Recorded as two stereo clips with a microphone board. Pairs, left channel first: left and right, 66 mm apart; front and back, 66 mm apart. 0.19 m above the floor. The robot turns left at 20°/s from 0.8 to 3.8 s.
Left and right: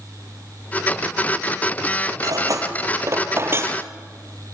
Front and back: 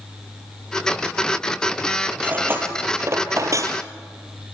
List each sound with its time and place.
2.2 s cutlery clinking: 115° right, 3 m; by 3.8 s 145° right, 3 m